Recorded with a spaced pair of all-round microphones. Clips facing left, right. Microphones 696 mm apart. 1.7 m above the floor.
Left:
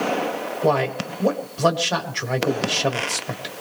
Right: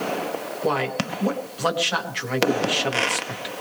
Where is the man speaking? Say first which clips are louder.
Left 3 dB; 65° left (ahead or behind), 1.6 m.